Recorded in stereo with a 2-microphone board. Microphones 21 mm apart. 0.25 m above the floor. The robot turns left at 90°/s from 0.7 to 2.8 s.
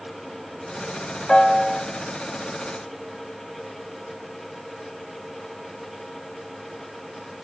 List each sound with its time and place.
1.3 s a piano: 55° left, 0.6 m; by 1.8 s 5° left, 0.6 m